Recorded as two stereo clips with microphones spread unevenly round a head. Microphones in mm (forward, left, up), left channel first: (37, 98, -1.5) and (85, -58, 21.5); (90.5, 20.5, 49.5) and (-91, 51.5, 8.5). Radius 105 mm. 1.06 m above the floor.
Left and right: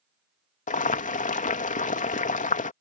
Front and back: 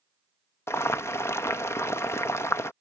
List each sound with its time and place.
0.7 s boiling: 70° left